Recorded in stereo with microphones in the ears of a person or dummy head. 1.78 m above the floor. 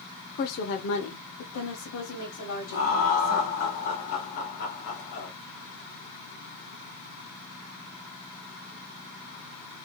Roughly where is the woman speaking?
Left.